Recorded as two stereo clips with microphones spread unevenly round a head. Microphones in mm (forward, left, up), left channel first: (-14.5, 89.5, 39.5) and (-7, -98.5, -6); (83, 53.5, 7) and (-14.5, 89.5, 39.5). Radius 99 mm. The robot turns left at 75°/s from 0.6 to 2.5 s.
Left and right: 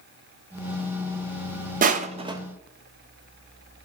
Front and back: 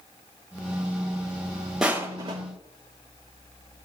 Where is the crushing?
105° right, 0.8 m; by 2.4 s 145° right, 0.8 m.